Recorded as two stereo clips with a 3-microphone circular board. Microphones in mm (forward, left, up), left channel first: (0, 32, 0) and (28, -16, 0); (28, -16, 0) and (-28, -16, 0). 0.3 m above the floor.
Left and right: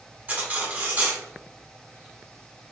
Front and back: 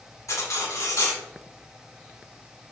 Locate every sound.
0.3 s cutlery clinking: 5° right, 1.4 m